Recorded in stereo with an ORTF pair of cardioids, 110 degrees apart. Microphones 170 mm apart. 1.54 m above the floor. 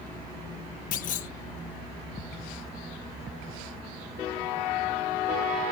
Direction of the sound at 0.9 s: 55° left.